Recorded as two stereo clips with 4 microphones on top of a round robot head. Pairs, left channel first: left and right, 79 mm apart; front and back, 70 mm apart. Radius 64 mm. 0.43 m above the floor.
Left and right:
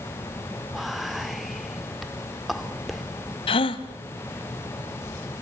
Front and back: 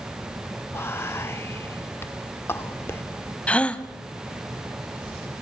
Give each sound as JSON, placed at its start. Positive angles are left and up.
{"t": 0.7, "sound": "whispering", "azimuth_deg": 0, "distance_m": 1.6}
{"t": 3.5, "sound": "a gasp", "azimuth_deg": 70, "distance_m": 1.3}